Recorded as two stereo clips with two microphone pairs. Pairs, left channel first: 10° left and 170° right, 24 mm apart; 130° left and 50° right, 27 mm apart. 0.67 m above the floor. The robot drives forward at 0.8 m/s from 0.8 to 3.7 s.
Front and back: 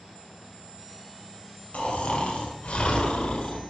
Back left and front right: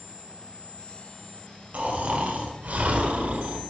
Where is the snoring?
10° right, 3 m; by 3.6 s 25° right, 1.4 m.